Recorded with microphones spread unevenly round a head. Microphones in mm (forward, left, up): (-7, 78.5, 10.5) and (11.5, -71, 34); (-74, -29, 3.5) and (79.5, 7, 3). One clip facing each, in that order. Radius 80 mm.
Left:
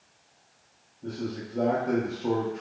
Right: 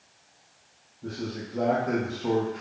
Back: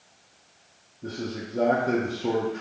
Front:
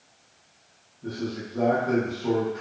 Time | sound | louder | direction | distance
1.0 | a man speaking | left 1 dB, front 1 dB | 170° left | 0.7 m